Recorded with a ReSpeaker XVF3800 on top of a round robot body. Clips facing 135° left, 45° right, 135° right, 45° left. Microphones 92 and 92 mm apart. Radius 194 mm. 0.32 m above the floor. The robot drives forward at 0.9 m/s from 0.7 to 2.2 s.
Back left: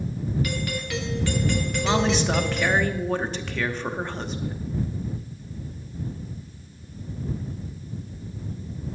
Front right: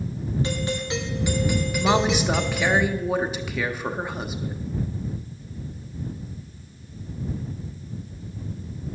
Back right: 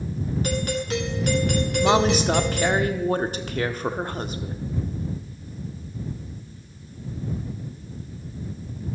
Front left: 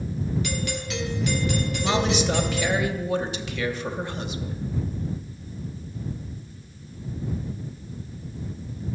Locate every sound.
0.4 s a doorbell: 100° right, 2 m; by 2.8 s 135° right, 3 m
1.8 s a woman speaking: 95° right, 1.0 m; by 4.6 s 125° right, 1.1 m